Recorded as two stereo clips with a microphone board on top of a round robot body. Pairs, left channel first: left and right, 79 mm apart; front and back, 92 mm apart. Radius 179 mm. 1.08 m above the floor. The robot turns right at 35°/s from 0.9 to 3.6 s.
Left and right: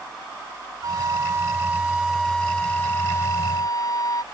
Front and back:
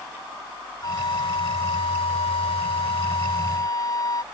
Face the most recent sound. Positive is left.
turn(degrees=50)